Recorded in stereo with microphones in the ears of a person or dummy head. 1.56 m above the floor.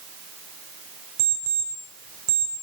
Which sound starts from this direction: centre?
An alarm clock, at 1.2 s.